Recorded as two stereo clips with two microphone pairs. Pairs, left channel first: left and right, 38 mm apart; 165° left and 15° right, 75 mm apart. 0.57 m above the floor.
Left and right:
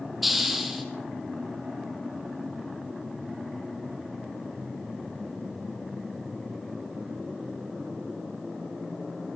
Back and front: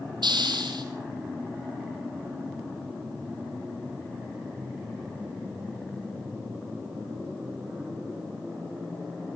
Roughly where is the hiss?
Ahead.